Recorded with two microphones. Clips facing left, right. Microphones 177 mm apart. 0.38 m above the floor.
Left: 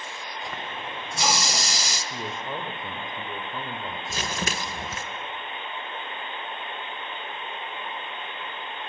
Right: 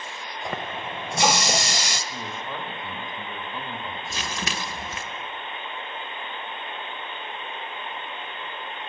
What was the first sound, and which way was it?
A running tap, 65° right (ahead or behind).